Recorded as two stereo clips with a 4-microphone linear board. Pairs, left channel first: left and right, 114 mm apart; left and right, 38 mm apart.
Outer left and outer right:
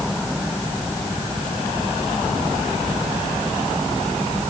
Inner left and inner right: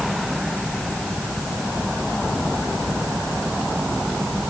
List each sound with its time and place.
Only background noise.